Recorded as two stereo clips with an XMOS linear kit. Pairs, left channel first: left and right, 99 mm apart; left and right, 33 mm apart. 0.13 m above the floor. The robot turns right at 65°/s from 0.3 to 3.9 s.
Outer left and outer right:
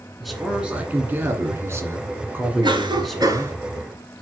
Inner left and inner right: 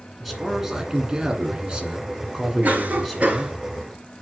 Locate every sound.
0.2 s a man speaking: centre (ahead or behind), 1.6 m; by 3.5 s 15° left (ahead or behind), 1.6 m
2.6 s a cough: 95° right, 1.5 m; by 3.5 s 35° right, 1.5 m